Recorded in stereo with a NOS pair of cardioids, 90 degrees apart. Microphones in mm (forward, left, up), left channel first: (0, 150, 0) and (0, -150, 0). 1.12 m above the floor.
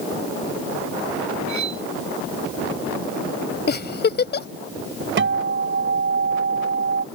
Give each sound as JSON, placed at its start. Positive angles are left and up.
{"t": 1.5, "sound": "cutlery clinking", "azimuth_deg": -70}
{"t": 3.7, "sound": "a giggle", "azimuth_deg": 35}
{"t": 5.2, "sound": "a guitar", "azimuth_deg": -40}